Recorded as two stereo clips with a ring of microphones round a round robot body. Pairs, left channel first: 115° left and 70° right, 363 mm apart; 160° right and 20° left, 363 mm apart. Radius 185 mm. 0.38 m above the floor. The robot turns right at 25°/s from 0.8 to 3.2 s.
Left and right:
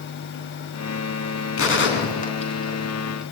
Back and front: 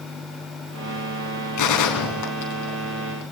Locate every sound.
1.6 s a gunshot: 165° left, 4.5 m; by 3.2 s 155° right, 4.5 m